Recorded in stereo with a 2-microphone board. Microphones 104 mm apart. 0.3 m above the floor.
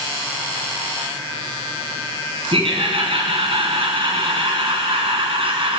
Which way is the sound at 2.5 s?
60° right (ahead or behind).